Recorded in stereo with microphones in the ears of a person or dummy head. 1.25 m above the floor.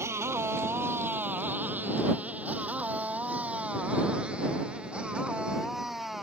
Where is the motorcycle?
15° right (ahead or behind); by 6.2 s centre (ahead or behind).